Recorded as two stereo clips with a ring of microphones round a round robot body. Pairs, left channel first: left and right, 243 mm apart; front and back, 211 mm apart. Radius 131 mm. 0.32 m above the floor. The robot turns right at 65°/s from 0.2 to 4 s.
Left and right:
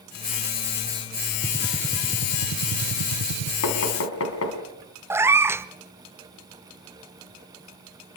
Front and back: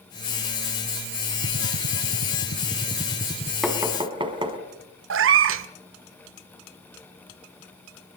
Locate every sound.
1.4 s a gunshot: 165° left, 1.2 m; by 3.5 s 60° right, 1.2 m
3.6 s knocking: 90° left, 3 m; by 4.6 s 115° left, 3 m
5.1 s a cat meowing: 170° right, 0.7 m